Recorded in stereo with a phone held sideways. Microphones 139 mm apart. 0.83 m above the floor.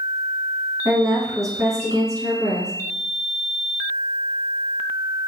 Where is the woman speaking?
25° right (ahead or behind), 1.0 m.